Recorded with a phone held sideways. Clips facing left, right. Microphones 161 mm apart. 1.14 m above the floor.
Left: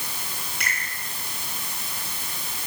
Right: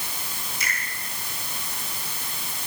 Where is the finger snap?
65° left (ahead or behind), 9 m.